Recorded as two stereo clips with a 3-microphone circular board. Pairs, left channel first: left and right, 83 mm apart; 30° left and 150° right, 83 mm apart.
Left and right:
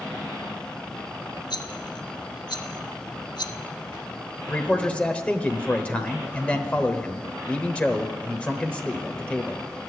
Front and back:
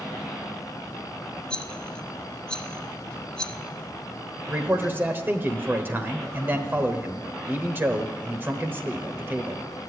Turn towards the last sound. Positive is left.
turn(degrees=160)